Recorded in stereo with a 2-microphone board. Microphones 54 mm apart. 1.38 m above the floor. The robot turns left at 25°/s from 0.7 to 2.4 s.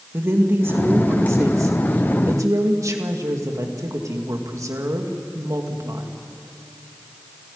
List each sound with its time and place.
0.1 s a woman speaking: 50° right, 2.5 m; by 6.1 s 90° right, 2.5 m